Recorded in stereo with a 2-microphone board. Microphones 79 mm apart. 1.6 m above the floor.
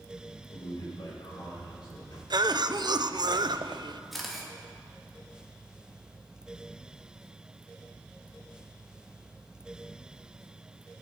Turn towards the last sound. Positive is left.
turn(degrees=0)  # may be behind; listen again after turning